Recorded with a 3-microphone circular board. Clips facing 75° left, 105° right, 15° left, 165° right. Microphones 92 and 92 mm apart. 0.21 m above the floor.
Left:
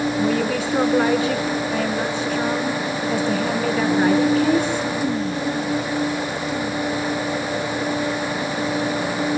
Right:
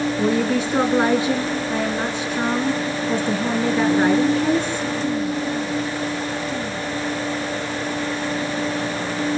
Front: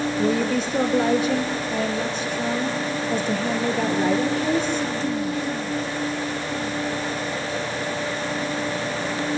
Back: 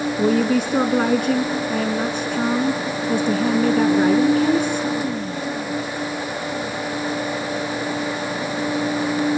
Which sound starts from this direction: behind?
A woman speaking, at 0.2 s.